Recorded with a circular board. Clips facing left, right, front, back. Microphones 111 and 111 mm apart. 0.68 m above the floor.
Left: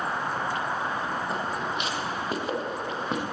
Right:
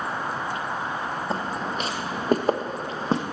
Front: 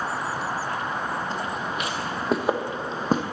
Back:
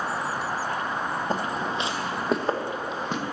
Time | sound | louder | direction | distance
1.3 | footsteps | right 2 dB, back 2 dB | 145° right | 1.3 m